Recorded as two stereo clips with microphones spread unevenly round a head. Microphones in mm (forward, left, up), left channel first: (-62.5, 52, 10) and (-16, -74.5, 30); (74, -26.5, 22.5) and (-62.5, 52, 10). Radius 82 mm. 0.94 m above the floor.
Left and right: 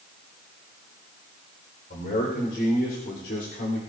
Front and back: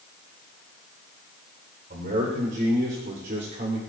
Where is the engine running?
No engine running in this recording.